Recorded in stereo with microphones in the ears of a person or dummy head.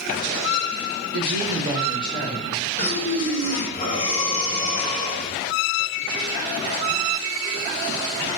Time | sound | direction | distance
1.1 | a woman speaking | 80° right | 0.6 m
2.8 | breathing | 35° left (ahead or behind) | 0.7 m